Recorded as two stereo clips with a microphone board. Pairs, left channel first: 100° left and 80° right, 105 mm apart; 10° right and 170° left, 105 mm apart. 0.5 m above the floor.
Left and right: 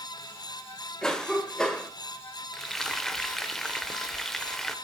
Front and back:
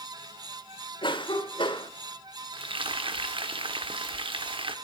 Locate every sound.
1.0 s a cough: 15° left, 1.8 m
2.5 s frying: 175° right, 1.0 m